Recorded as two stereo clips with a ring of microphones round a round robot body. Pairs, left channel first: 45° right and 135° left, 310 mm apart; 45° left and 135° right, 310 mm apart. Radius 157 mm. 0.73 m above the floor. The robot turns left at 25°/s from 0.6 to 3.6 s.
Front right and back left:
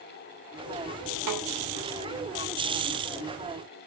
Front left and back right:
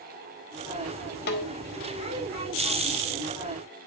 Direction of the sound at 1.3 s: 105° left.